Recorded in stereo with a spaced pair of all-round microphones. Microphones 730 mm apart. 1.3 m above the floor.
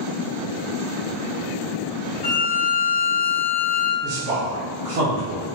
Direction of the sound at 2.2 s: 55° left (ahead or behind).